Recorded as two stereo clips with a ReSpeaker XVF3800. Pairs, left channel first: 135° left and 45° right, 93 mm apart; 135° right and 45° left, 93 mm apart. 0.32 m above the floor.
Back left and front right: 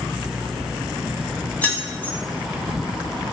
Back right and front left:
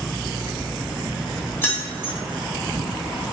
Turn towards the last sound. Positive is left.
turn(degrees=-170)